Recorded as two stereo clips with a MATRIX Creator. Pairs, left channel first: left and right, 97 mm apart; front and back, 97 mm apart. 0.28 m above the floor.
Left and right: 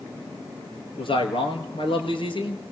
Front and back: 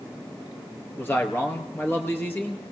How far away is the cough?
No cough in this recording.